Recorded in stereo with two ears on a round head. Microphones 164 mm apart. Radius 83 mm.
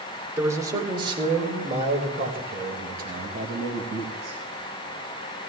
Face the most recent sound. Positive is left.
turn(degrees=-65)  # may be behind; listen again after turning